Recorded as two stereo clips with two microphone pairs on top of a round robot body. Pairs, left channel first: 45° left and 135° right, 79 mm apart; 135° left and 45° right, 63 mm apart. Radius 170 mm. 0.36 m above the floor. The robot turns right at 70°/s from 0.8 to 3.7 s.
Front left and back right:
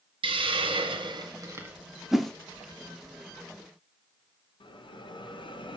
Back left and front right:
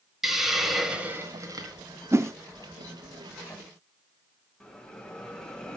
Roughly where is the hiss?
Behind right.